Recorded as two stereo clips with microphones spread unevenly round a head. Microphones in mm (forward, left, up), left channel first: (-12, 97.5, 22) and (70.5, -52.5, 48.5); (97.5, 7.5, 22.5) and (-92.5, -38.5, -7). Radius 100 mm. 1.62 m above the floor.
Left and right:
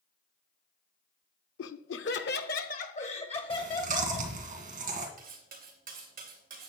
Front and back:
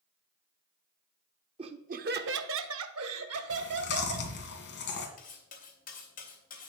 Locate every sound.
1.6 s laughter: 125° left, 0.8 m; by 4.3 s 170° right, 1.9 m
3.5 s chewing: 20° right, 2 m
5.2 s cutlery clinking: 30° right, 2.5 m